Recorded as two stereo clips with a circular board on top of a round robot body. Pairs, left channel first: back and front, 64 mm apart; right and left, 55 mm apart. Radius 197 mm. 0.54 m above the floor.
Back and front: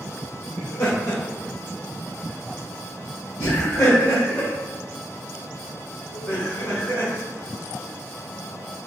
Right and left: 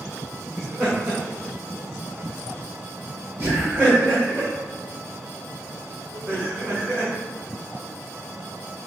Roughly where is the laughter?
Behind left.